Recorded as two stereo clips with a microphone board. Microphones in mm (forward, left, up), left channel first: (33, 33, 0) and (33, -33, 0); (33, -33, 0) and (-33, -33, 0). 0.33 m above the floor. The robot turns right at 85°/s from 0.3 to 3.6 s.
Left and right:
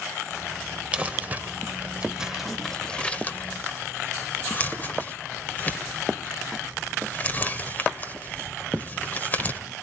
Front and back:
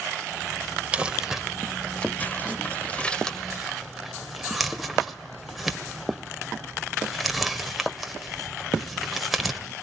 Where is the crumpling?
135° right, 1.3 m; by 9.6 s 90° left, 1.3 m.